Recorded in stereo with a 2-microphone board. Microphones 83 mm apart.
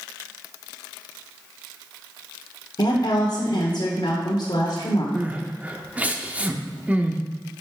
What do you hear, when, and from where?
2.8 s a woman speaking: 60° left (ahead or behind), 1.4 m
5.2 s crying: 20° right (ahead or behind), 0.6 m